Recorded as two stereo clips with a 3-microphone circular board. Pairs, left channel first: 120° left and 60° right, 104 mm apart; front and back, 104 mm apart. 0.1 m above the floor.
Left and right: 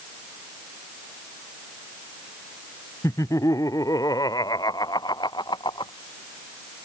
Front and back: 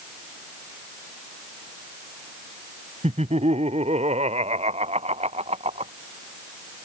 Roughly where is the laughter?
Behind.